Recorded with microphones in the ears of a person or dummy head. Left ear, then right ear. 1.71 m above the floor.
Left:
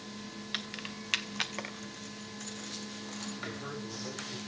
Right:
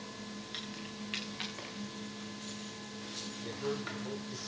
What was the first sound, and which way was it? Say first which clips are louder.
Keys jangling: left 6 dB; 15° left (ahead or behind).